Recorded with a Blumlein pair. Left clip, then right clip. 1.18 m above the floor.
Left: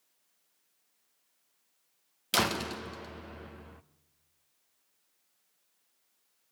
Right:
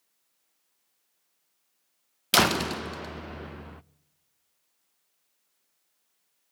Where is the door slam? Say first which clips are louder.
Right 7 dB; 70° right, 0.6 m.